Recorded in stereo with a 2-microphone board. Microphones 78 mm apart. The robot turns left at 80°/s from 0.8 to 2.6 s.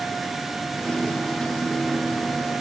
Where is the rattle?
No rattle in this recording.